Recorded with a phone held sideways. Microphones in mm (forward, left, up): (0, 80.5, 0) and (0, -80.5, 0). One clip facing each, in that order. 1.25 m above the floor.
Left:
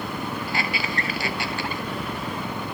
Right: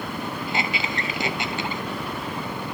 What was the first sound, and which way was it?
A squeak, 20° right (ahead or behind).